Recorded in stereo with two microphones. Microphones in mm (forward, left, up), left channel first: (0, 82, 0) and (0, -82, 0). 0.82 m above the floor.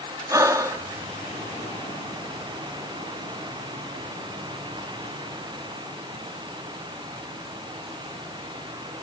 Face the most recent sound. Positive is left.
turn(degrees=-20)  # may be behind; listen again after turning